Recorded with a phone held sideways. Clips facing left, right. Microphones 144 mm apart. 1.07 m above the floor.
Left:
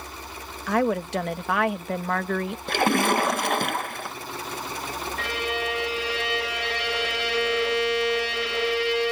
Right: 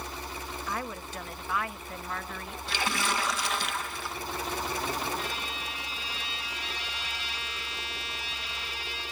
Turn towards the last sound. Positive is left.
turn(degrees=85)